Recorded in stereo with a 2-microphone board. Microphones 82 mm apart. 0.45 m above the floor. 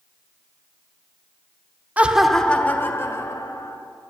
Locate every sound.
2.0 s laughter: 20° right (ahead or behind), 0.8 m; by 3.8 s 40° left (ahead or behind), 1.8 m